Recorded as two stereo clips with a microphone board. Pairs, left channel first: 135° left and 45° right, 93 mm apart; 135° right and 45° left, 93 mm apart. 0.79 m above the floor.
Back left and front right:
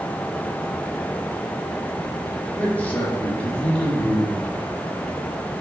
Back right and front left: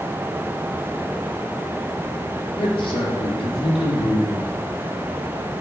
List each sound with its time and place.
2.6 s a man speaking: 155° right, 1.7 m